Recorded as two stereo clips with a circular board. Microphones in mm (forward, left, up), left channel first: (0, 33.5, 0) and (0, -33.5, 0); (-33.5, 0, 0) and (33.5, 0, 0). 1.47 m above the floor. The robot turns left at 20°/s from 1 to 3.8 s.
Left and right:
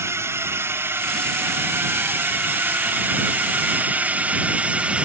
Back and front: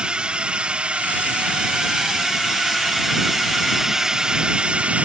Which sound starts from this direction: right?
A drone, at 0.0 s.